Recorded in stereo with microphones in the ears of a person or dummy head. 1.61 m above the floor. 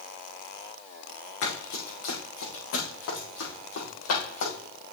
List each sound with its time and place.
1.4 s running footsteps: 70° left (ahead or behind), 4.5 m